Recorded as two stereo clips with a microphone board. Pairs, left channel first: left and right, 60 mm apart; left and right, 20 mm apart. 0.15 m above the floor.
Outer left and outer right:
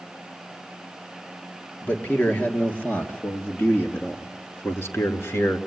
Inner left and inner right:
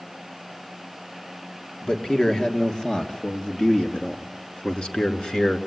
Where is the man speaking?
30° left (ahead or behind), 3.5 m; by 5.6 s 45° left (ahead or behind), 2 m.